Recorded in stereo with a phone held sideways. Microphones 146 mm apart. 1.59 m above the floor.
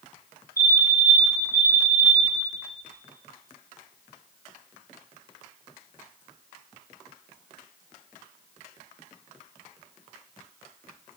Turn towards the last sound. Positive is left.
turn(degrees=80)